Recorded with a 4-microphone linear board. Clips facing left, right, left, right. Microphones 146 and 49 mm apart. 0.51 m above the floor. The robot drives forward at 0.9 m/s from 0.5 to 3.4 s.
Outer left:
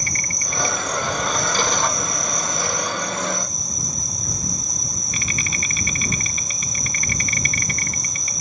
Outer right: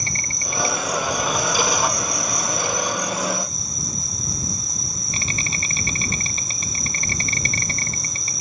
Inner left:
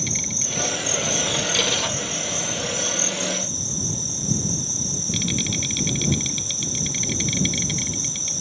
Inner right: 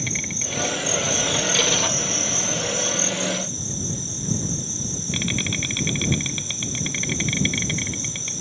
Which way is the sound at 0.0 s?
30° right (ahead or behind).